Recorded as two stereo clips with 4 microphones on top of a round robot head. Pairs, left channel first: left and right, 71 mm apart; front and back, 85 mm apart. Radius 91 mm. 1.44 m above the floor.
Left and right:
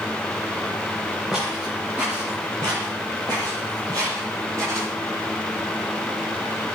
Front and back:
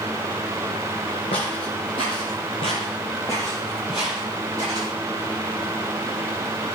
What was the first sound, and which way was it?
Footsteps, 5° right.